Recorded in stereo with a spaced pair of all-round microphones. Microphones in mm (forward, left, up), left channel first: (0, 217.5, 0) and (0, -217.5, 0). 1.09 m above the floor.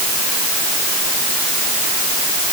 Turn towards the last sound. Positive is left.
No sound to turn to.